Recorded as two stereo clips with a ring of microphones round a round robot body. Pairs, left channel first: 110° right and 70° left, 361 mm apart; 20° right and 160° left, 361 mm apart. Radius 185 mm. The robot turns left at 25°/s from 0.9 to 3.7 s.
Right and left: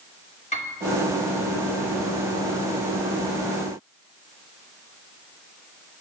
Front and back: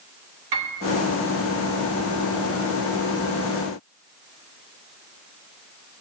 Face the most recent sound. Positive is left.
turn(degrees=105)